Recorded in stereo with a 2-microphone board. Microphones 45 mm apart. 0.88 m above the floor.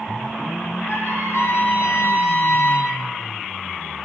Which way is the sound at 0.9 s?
75° left (ahead or behind).